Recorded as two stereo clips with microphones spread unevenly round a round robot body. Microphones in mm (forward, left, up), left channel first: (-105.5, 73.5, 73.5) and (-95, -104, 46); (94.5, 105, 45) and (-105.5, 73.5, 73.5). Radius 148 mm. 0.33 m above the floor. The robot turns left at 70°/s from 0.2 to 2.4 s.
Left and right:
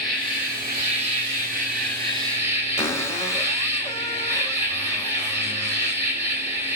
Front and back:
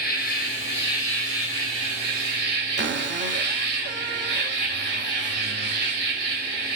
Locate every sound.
0.0 s an insect: straight ahead, 3.5 m; by 6.8 s 155° right, 3.5 m
2.8 s a cupboard door: 170° left, 1.4 m